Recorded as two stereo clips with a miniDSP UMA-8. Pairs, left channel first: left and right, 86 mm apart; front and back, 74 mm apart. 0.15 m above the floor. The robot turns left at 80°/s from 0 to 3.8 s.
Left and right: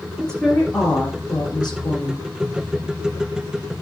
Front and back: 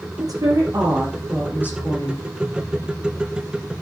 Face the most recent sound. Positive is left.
turn(degrees=-115)